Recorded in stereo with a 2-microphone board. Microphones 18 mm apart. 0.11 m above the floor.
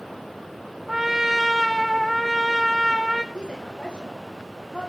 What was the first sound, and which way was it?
A trumpet, 15° right (ahead or behind).